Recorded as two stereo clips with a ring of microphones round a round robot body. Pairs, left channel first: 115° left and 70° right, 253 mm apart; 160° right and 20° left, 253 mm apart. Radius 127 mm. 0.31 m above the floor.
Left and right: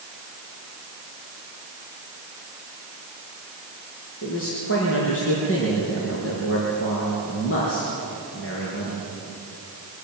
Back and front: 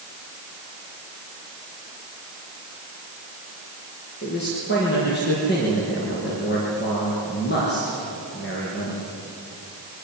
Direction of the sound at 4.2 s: 150° left.